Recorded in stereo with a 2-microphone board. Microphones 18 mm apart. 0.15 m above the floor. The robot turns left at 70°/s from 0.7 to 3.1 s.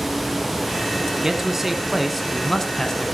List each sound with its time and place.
1.2 s a man speaking: 115° right, 1.7 m; by 3.1 s 110° left, 1.7 m